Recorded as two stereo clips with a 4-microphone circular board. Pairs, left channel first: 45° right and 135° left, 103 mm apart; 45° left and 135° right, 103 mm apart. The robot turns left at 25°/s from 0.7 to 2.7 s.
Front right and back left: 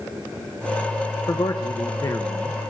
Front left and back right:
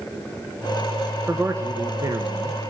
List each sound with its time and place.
1.3 s a man speaking: 70° right, 0.8 m; by 2.7 s 105° right, 0.8 m